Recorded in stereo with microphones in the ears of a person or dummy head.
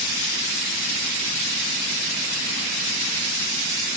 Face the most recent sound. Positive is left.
No sound to turn to.